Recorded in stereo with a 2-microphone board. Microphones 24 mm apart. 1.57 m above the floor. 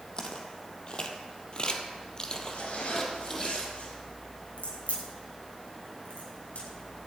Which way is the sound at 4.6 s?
60° left (ahead or behind).